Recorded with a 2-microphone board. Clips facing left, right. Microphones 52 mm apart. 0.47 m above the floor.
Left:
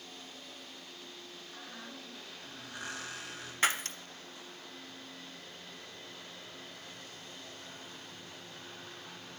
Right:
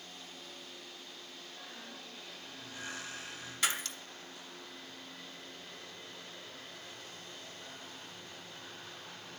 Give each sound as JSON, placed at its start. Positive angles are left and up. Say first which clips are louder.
{"t": 1.5, "sound": "a squeak", "louder": "left 3 dB", "side_deg": 70, "distance_m": 3.0}
{"t": 3.6, "sound": "breaking glass", "louder": "left 4 dB", "side_deg": 40, "distance_m": 0.7}